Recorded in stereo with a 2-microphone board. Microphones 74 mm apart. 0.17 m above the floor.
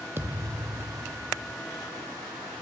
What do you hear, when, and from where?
0.2 s a thud: 30° right (ahead or behind), 0.7 m